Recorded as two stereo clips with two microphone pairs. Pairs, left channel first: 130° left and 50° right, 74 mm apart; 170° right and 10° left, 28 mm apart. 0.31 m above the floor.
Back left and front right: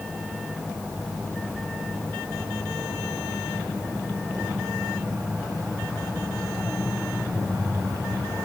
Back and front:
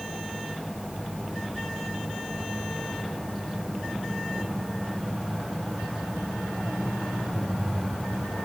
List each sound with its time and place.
Only background noise.